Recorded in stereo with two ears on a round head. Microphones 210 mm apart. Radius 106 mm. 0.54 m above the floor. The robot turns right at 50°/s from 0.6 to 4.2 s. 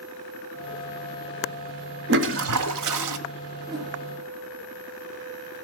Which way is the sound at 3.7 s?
20° right (ahead or behind).